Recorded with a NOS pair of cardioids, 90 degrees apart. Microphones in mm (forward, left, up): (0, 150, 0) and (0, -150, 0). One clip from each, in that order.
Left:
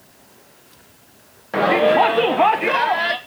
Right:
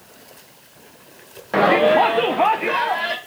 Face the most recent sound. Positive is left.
turn(degrees=20)